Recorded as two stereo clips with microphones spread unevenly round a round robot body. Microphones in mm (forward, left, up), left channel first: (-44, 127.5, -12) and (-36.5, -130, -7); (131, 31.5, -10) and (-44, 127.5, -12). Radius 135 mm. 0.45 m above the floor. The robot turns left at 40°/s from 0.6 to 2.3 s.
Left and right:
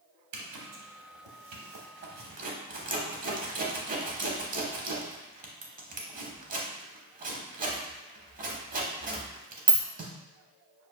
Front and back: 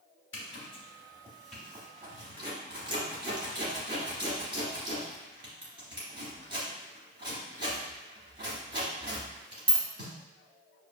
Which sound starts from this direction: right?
A zipper, at 0.3 s.